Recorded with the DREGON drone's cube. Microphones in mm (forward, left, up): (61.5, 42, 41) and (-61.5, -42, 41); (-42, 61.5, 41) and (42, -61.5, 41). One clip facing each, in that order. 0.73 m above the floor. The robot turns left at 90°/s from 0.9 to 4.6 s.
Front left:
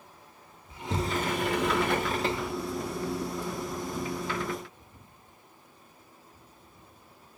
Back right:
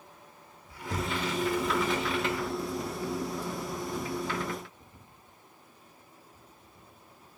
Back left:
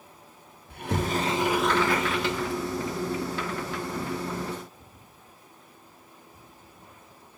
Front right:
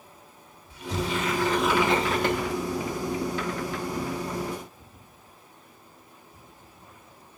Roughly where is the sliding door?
Left.